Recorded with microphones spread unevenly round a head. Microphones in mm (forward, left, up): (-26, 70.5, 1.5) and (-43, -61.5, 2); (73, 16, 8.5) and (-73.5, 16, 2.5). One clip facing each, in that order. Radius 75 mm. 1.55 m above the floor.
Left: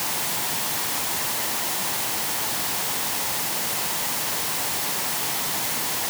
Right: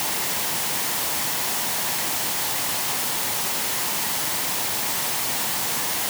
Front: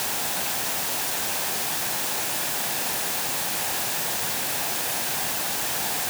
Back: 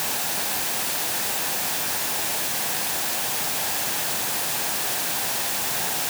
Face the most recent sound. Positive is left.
No sound to turn to.